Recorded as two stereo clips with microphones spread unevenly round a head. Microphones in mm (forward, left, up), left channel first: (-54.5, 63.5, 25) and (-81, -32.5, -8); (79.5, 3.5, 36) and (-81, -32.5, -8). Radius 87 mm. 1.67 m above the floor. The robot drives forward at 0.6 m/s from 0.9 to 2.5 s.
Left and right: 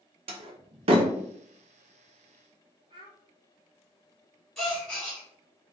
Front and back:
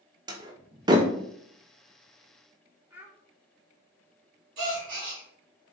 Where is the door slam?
95° right, 0.6 m; by 1.1 s 115° right, 0.6 m.